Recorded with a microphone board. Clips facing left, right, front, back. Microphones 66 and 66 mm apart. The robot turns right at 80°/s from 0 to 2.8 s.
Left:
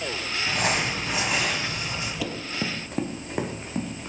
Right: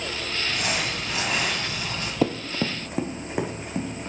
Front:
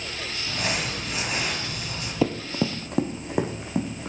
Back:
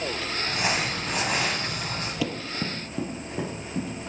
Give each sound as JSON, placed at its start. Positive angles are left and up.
{"t": 0.5, "sound": "crumpling", "azimuth_deg": 100, "distance_m": 1.6}
{"t": 2.2, "sound": "running footsteps", "azimuth_deg": -50, "distance_m": 0.6}